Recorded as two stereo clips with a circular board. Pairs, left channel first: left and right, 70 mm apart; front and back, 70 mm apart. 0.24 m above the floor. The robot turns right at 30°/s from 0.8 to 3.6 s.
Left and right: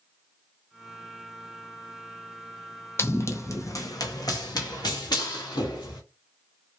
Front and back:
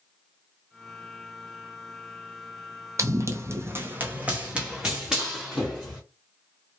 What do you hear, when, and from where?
3.0 s running footsteps: 140° left, 0.6 m; by 6.0 s 90° left, 1.6 m